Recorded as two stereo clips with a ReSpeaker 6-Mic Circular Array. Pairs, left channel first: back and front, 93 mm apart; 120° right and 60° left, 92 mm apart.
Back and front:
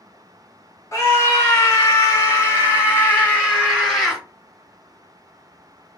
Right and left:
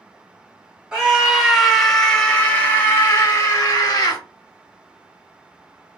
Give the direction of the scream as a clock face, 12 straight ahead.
7 o'clock.